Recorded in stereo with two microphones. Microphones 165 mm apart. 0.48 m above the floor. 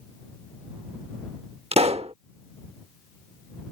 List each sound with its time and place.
1.7 s a pop: 40° right (ahead or behind)